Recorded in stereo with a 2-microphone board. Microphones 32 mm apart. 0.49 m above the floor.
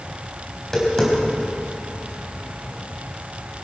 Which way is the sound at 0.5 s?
15° left (ahead or behind).